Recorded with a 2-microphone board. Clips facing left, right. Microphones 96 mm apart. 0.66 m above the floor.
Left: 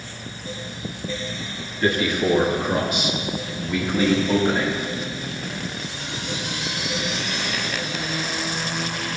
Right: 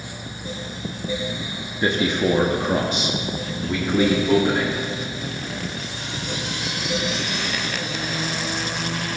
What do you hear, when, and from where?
1.8 s a man speaking: 20° right (ahead or behind), 1.0 m; by 4.8 s 30° right (ahead or behind), 1.9 m